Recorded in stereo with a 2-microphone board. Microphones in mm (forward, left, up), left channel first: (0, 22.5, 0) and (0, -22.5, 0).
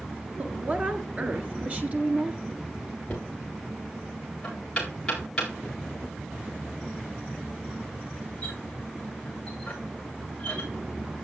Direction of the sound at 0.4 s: 35° right (ahead or behind).